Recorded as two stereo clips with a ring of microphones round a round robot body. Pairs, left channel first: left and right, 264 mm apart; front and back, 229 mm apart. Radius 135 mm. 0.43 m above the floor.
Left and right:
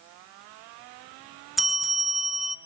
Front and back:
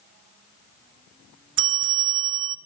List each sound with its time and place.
1.6 s a bell: straight behind, 1.0 m